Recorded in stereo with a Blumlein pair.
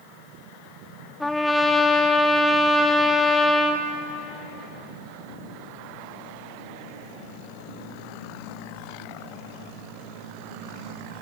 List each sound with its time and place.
1.2 s a trumpet: 5° left, 2.5 m